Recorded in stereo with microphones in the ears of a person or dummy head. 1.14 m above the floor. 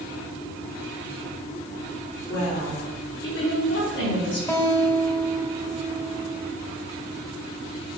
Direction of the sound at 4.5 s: 10° left (ahead or behind).